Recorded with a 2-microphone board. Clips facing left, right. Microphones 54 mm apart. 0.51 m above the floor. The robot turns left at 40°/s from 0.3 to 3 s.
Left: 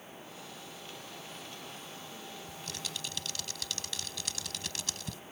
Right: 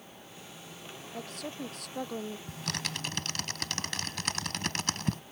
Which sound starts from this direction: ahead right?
A woman speaking, at 1.1 s.